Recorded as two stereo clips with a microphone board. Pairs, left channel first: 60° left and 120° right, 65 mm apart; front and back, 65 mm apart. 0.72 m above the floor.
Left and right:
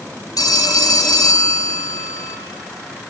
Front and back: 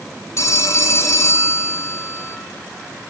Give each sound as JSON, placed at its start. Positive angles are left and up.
{"t": 0.4, "sound": "a phone ringing", "azimuth_deg": 40, "distance_m": 1.5}